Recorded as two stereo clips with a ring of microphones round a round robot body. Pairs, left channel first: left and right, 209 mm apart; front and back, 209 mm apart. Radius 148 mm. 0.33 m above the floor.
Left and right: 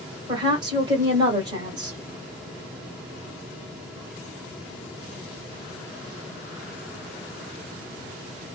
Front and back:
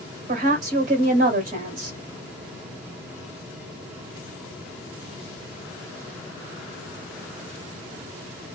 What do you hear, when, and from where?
0.3 s a woman speaking: 150° right, 1.7 m